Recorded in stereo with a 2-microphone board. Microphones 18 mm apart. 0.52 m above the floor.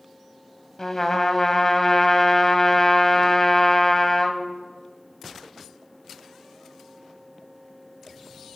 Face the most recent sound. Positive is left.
turn(degrees=35)  # may be behind; listen again after turning